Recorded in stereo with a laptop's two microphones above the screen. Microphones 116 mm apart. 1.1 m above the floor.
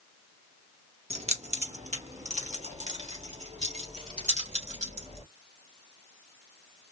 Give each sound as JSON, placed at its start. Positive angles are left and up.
{"t": 1.1, "sound": "keys jangling", "side_deg": -70, "distance_m": 0.9}